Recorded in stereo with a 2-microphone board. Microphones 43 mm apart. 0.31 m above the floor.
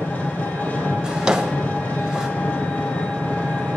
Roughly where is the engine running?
Left.